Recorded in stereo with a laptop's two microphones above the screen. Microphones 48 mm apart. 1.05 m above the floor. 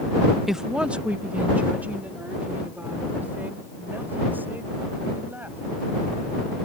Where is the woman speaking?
5° right (ahead or behind); by 5.6 s 45° right (ahead or behind).